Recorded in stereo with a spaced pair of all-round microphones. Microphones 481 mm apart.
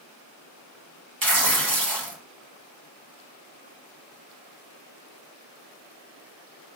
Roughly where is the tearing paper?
Right.